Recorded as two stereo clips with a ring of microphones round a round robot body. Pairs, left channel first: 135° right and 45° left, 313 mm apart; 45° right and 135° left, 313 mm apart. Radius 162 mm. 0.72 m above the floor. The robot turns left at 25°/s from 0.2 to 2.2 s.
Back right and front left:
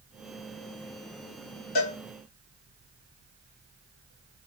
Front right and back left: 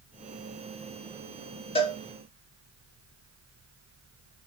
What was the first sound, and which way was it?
A cowbell, 120° right.